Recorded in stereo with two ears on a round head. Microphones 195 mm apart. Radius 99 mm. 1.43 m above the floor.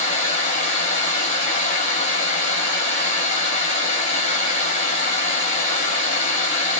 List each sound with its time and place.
0.0 s running water: 30° left (ahead or behind), 3 m